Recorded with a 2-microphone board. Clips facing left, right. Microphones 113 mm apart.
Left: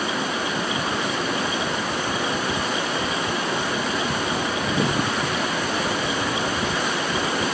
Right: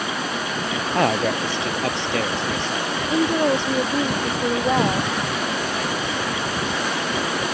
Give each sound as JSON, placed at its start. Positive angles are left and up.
{"t": 0.9, "sound": "a man speaking", "side_deg": -80}
{"t": 3.1, "sound": "a woman speaking", "side_deg": -70}